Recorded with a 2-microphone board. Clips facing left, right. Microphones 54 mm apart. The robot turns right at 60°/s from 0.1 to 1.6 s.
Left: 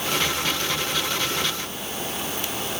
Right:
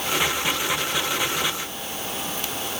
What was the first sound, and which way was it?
Only background noise.